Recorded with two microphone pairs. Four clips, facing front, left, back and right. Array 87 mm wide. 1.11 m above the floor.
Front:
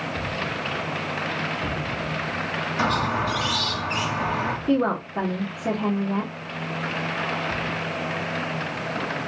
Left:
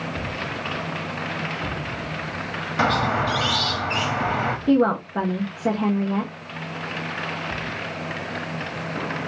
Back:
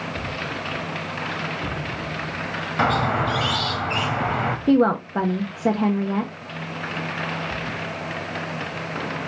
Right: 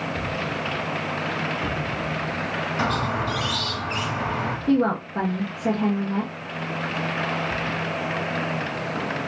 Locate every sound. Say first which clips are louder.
2.8 s a squeak: left 5 dB, back 3 dB; 135° left, 1.0 m
4.7 s a woman speaking: left 2 dB, back 5 dB; 165° left, 1.1 m